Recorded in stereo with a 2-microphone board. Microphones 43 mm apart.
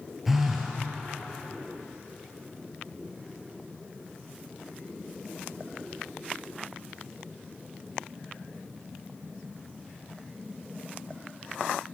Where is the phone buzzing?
5° right (ahead or behind), 1.0 m.